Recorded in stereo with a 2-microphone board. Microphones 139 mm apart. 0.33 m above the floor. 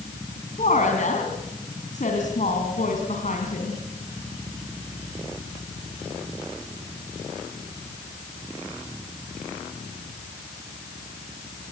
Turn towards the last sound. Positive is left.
turn(degrees=65)  # may be behind; listen again after turning